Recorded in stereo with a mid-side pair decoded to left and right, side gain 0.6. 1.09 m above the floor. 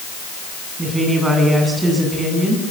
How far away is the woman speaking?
About 9.5 m.